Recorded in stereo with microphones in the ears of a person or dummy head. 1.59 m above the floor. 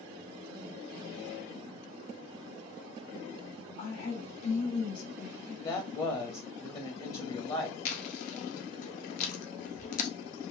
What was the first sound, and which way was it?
A woman speaking, 50° left (ahead or behind).